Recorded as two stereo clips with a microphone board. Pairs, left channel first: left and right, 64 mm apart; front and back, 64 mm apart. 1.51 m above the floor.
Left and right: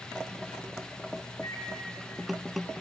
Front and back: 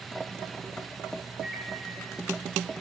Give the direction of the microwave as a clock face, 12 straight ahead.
9 o'clock.